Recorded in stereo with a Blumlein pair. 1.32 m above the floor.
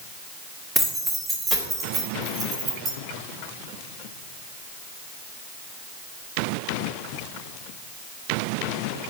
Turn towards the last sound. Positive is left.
turn(degrees=-30)